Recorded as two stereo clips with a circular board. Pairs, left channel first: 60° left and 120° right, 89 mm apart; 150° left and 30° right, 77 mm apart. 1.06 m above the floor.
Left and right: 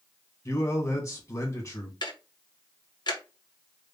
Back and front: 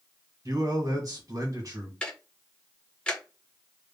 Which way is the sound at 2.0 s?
75° left.